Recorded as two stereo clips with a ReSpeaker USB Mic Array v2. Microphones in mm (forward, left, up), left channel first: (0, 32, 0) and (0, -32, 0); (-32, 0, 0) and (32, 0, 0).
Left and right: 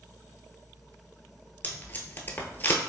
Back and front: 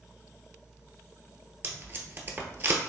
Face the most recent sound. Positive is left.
turn(degrees=45)